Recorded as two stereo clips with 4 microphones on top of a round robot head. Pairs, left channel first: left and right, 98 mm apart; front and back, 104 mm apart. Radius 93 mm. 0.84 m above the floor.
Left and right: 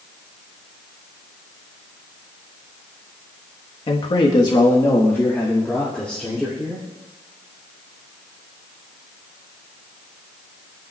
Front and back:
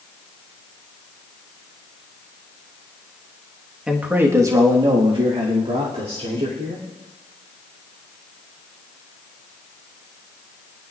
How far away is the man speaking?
About 1.4 m.